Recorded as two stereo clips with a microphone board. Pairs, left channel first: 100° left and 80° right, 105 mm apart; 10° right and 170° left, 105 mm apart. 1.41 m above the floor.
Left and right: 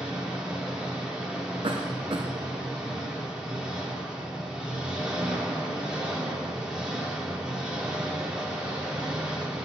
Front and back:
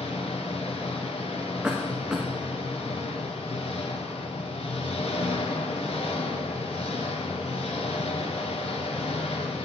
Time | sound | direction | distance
0.0 | an engine running | 5° left | 3 m
1.6 | a cough | 110° right | 1.1 m